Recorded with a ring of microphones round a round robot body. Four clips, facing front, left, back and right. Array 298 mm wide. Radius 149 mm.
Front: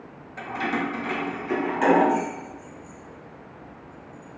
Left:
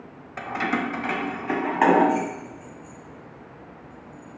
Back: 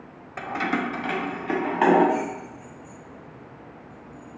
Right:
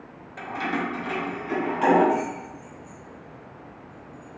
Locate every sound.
0.4 s keys jangling: 140° left, 1.2 m; by 4.4 s 115° left, 4 m